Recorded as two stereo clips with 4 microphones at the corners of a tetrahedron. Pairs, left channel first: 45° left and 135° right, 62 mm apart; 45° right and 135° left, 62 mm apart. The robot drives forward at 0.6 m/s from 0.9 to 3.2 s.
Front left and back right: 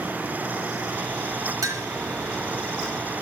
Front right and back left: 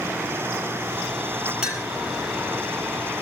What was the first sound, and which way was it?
A clink, 150° right.